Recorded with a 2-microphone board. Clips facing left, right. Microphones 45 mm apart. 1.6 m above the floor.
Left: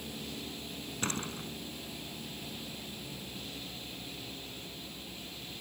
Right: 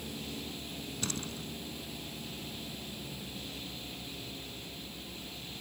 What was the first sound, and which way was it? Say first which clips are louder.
A door slam: left 4 dB; 40° left (ahead or behind).